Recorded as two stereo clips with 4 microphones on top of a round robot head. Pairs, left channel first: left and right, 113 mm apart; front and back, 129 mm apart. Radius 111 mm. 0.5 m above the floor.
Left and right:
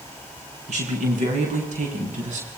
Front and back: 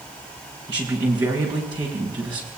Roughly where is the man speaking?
Behind right.